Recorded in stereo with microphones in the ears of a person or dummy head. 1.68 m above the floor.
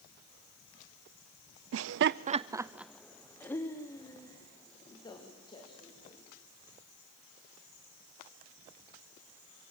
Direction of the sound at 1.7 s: 80° right.